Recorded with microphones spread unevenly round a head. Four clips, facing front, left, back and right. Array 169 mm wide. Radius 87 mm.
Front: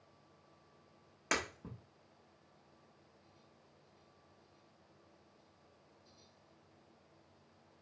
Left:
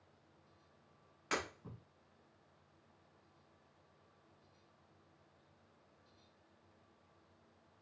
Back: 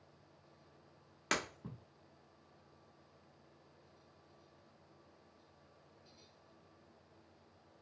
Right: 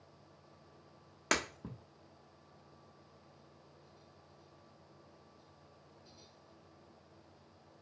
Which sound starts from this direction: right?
Breaking glass, at 1.3 s.